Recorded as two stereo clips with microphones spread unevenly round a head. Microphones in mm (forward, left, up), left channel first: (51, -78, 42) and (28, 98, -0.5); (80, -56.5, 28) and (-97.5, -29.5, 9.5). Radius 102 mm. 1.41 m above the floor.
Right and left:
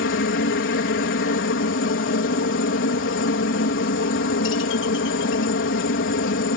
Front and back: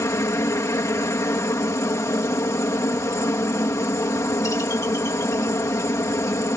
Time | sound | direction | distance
0.0 | a helicopter | 80° right | ?